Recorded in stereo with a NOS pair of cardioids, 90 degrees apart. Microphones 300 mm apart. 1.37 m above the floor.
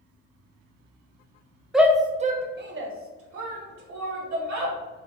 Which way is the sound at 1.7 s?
Straight ahead.